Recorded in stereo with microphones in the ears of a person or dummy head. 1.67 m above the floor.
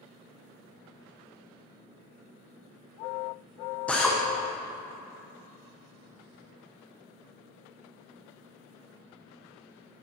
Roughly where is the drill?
Centre.